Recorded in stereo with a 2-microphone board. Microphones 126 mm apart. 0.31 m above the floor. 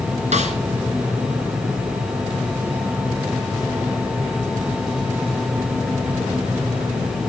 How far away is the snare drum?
About 2.5 m.